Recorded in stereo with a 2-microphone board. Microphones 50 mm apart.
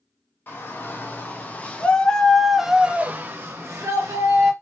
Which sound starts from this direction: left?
A shout, at 0.5 s.